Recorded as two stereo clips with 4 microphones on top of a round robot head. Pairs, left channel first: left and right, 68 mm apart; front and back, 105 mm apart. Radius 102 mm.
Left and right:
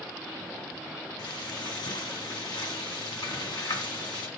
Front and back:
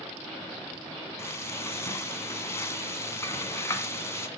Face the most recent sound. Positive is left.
turn(degrees=65)